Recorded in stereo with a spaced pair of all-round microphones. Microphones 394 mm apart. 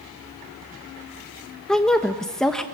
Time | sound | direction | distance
1.7 | a woman speaking | centre (ahead or behind) | 1.2 m